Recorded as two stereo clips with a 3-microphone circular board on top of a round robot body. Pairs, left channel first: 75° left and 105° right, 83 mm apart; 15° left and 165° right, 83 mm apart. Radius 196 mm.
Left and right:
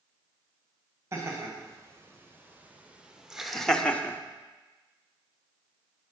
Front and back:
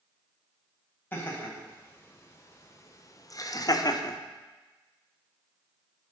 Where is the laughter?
50° right, 3.5 m; by 4.2 s 20° left, 1.4 m.